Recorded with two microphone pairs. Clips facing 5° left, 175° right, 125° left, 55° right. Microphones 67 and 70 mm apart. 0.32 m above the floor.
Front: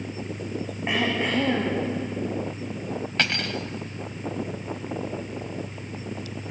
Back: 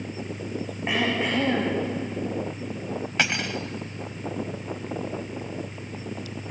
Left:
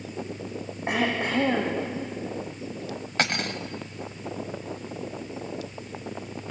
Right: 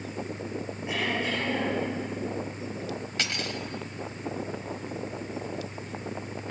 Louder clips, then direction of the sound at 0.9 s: Even, left 4 dB; 95° left.